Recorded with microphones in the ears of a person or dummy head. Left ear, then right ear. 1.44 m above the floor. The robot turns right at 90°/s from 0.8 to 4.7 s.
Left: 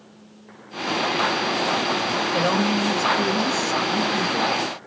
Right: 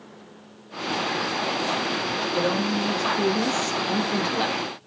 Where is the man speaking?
110° left, 0.8 m; by 4.6 s 45° right, 0.8 m.